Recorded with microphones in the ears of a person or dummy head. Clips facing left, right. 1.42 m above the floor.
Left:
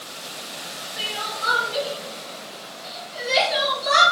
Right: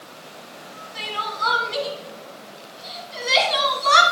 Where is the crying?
80° right, 3 m.